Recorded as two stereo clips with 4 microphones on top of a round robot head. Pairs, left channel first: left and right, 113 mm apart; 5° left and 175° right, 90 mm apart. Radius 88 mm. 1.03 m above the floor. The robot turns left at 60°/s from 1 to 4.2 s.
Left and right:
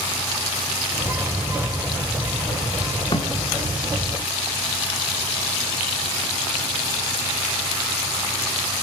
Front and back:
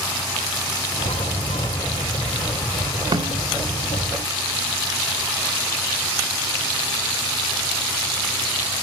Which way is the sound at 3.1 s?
150° left.